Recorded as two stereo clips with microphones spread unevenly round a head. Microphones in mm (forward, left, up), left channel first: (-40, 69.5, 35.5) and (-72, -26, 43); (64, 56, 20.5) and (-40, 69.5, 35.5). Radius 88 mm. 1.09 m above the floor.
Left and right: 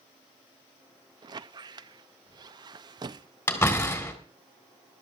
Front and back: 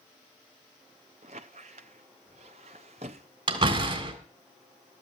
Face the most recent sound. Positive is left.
turn(degrees=140)